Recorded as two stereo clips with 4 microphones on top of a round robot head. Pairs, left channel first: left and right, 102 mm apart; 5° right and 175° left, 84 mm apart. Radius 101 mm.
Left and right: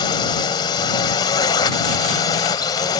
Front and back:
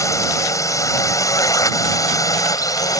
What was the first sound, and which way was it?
A drone, 45° left.